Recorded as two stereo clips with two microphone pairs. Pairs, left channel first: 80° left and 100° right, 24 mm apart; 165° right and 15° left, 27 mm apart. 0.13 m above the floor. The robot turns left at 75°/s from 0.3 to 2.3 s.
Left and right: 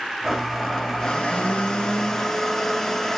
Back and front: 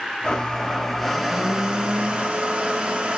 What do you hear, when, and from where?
0.2 s a blender: 170° left, 1.1 m; by 3.2 s 20° left, 1.1 m